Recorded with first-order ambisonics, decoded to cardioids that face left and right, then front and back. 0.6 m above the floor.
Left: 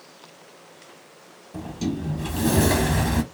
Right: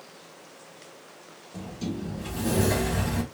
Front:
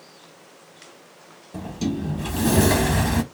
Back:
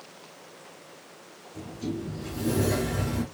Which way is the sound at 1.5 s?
25° left.